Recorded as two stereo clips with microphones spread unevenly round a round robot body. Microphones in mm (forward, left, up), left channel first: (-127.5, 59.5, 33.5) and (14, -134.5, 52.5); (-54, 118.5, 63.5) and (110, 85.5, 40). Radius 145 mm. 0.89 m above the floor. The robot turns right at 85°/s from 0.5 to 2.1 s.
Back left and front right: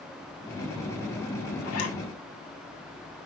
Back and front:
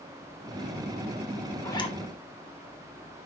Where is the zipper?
90° left, 2 m; by 2.0 s 120° left, 2 m.